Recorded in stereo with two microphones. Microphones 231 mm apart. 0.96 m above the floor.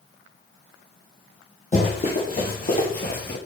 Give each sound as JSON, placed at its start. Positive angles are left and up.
{"t": 1.7, "sound": "running footsteps", "side_deg": 30, "distance_m": 2.0}